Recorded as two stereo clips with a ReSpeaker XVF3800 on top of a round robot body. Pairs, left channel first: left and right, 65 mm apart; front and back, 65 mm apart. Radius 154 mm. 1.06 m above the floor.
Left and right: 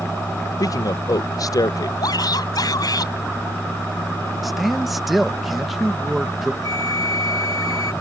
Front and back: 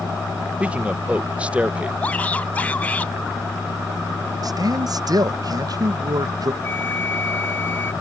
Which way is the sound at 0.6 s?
110° left.